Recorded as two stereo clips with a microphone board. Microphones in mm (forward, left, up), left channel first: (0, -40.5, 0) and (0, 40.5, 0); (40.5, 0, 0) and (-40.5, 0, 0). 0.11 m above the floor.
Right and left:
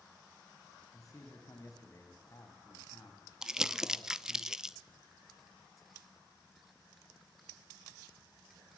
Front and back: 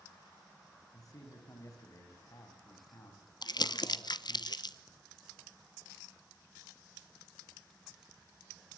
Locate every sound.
0.9 s a man speaking: 40° right, 6 m
3.4 s crumpling: 10° left, 0.8 m